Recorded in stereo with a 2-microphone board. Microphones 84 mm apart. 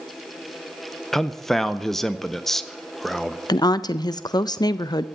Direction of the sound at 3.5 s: 55° left (ahead or behind).